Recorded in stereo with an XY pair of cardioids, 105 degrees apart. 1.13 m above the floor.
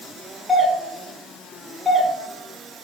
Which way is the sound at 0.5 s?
5° left.